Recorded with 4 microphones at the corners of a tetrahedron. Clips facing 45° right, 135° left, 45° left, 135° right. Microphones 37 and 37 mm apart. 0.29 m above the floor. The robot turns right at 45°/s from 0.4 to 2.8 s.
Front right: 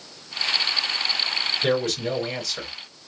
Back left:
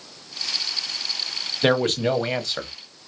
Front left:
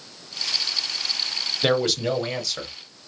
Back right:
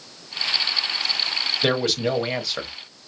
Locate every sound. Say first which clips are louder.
1.6 s a man speaking: back left 6 dB, front left 1 dB; 130° left, 1.2 m; by 2.7 s straight behind, 1.2 m